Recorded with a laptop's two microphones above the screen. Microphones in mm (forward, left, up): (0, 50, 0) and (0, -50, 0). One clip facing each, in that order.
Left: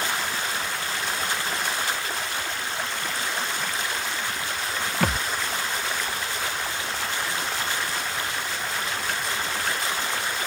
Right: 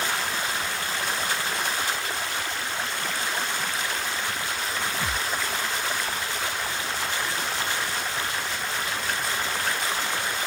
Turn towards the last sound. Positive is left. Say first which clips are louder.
# left 4 dB
turn(degrees=65)  # may be behind; listen again after turning